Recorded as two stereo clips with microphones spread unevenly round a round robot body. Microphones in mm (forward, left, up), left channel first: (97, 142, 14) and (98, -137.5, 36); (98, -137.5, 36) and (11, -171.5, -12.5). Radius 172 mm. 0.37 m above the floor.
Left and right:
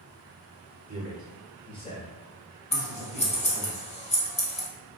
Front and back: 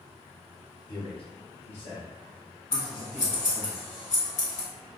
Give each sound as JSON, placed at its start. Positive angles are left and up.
{"t": 0.9, "sound": "a man speaking", "azimuth_deg": -40, "distance_m": 1.1}
{"t": 2.7, "sound": "scissors", "azimuth_deg": 30, "distance_m": 1.4}